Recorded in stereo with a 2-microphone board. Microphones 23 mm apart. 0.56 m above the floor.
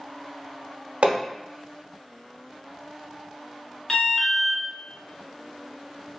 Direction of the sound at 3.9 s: 25° left (ahead or behind).